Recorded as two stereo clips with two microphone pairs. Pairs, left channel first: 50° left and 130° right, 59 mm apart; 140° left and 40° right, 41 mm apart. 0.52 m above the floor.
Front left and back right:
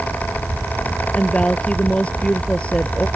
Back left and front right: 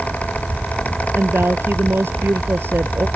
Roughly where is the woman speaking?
Ahead.